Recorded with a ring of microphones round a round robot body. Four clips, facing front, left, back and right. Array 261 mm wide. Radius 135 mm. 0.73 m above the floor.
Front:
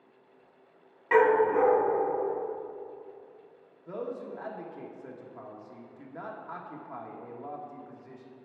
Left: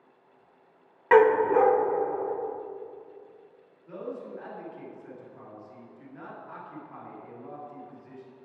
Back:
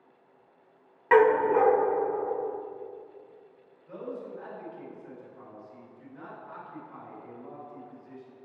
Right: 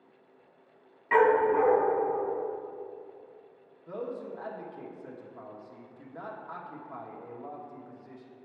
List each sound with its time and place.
1.1 s a dog barking: 115° left, 1.0 m
3.9 s a man speaking: 25° right, 1.3 m